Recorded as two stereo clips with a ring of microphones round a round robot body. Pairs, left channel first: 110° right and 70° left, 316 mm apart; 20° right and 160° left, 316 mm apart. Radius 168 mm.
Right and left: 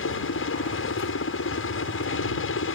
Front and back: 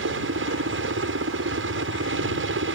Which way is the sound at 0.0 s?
155° right.